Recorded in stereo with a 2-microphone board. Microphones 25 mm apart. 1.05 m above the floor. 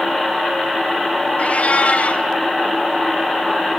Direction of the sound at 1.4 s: 75° left (ahead or behind).